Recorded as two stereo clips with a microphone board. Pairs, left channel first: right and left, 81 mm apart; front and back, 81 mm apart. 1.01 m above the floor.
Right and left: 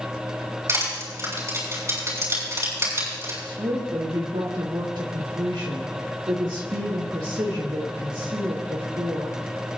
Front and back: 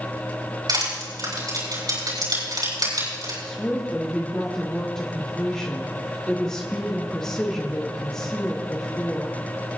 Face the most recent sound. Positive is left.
turn(degrees=80)